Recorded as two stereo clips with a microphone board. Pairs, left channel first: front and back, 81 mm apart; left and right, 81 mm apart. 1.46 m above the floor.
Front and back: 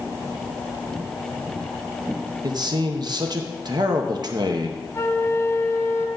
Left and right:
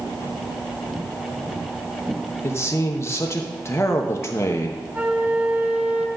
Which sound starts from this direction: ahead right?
A flute, at 4.9 s.